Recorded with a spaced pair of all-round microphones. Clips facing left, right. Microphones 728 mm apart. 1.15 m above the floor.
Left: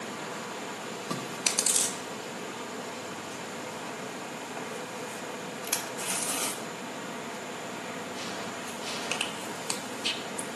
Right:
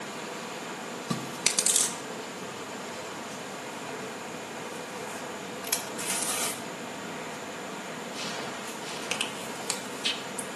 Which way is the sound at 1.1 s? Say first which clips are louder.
Right 2 dB; 50° right (ahead or behind).